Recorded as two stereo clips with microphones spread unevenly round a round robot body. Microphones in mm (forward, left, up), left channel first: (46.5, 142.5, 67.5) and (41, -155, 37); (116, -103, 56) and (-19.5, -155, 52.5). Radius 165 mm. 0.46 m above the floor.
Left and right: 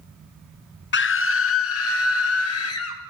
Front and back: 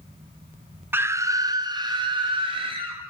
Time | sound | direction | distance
0.9 | a scream | 130° left | 0.9 m